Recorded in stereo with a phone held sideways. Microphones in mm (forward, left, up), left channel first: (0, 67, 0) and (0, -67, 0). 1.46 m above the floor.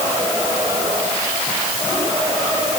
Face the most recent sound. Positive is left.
No sound to turn to.